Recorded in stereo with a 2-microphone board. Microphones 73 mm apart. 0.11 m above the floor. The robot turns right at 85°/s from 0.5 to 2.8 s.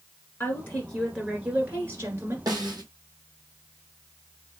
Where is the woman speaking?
125° left, 1.8 m; by 2.4 s 80° right, 1.8 m.